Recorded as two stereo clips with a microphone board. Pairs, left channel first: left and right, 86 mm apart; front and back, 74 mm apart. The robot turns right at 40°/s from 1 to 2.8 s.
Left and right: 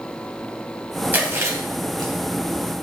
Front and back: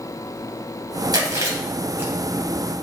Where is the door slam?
I don't hear a door slam.